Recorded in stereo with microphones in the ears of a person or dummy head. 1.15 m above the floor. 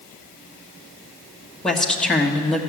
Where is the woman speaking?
5° left (ahead or behind), 1.3 m.